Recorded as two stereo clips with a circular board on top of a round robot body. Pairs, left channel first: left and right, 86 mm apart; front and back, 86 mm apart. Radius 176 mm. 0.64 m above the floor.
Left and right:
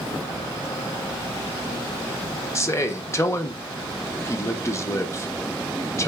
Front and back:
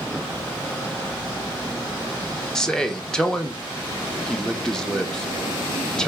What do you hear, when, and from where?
2.5 s a man speaking: 75° left, 0.8 m